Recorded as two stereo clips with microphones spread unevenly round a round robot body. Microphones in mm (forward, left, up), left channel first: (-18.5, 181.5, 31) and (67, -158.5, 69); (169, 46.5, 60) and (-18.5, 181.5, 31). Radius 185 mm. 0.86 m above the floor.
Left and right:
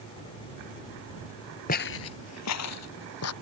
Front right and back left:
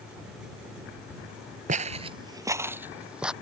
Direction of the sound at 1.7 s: 155° left.